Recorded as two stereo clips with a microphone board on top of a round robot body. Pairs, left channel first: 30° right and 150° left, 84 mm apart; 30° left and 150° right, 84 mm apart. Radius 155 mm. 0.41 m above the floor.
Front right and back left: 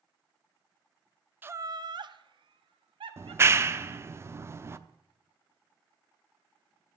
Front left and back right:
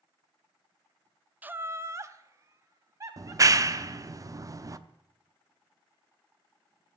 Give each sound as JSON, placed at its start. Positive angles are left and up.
{"t": 1.4, "sound": "laughter", "azimuth_deg": 170, "distance_m": 0.7}
{"t": 3.2, "sound": "a clap", "azimuth_deg": -170, "distance_m": 1.0}